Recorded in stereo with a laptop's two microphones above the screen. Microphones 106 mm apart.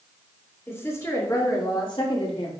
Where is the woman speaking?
25° left (ahead or behind), 3.5 m; by 2.5 s 65° left (ahead or behind), 2.5 m.